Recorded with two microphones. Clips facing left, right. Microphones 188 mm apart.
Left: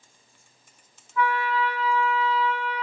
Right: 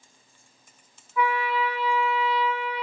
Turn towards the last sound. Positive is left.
turn(degrees=-10)  # may be behind; listen again after turning